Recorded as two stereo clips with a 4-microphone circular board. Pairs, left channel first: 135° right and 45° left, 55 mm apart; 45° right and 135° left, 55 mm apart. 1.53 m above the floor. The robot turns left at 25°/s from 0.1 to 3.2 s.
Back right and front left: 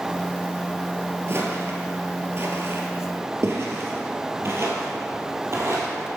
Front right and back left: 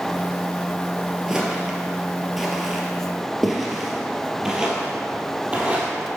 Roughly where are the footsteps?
Ahead left.